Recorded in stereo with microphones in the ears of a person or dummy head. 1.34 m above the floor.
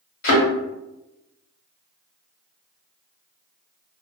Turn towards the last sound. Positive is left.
turn(degrees=55)  # may be behind; listen again after turning